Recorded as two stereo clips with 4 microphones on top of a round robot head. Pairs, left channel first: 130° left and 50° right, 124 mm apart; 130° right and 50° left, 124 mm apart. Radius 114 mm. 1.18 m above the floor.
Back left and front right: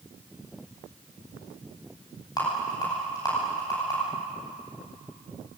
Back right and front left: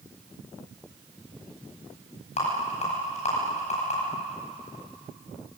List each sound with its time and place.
2.4 s a rattle: 165° right, 10 m